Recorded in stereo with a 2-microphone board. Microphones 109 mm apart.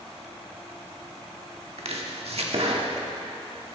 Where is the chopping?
65° right (ahead or behind), 1.4 m.